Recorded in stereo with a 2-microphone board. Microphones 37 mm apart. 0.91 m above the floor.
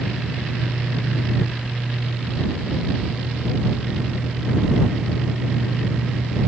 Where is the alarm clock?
I don't hear an alarm clock.